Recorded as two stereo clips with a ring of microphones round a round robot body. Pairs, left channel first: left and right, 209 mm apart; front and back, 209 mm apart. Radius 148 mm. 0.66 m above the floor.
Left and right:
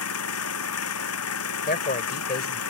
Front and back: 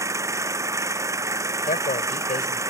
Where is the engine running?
105° left.